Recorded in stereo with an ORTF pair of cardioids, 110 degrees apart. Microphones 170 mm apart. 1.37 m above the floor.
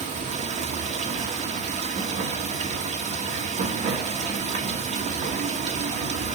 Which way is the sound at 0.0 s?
45° right.